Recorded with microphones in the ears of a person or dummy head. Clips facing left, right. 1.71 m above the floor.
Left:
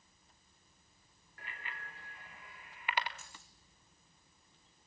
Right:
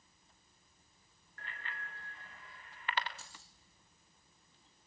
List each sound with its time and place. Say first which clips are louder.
1.4 s a bicycle bell: right 1 dB; 10° left (ahead or behind), 4 m; by 3.1 s 15° left (ahead or behind), 2.5 m
3.2 s keys jangling: even; 30° right (ahead or behind), 2.5 m